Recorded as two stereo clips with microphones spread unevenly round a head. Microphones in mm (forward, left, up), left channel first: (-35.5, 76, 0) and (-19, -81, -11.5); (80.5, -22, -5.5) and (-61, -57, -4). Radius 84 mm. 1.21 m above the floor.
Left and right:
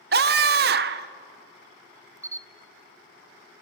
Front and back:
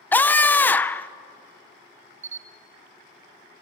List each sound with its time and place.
0.1 s a scream: 65° right, 0.6 m
2.2 s a camera shutter: 155° right, 0.6 m